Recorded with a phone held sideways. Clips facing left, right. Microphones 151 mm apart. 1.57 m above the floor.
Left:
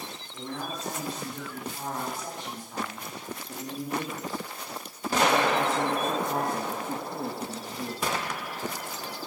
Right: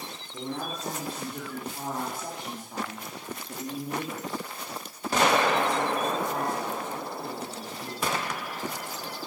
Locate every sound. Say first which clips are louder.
0.3 s a man speaking: right 2 dB; 30° right (ahead or behind), 5.5 m; by 8.0 s 60° left (ahead or behind), 3 m